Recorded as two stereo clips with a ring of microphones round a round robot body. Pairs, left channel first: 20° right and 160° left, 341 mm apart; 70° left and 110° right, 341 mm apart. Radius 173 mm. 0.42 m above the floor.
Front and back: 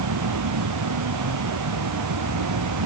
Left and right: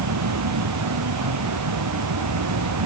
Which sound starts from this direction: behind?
An insect, at 0.0 s.